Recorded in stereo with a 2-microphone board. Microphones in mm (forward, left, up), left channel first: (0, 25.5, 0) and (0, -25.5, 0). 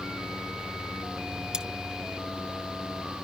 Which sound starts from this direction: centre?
Cutlery clinking, at 1.5 s.